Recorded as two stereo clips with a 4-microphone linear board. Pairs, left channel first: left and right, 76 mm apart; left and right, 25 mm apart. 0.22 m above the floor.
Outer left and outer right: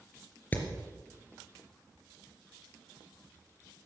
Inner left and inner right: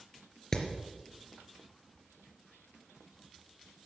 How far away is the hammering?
About 3.5 m.